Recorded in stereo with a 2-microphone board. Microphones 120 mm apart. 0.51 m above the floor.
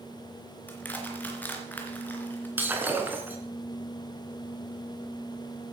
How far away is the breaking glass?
About 3 m.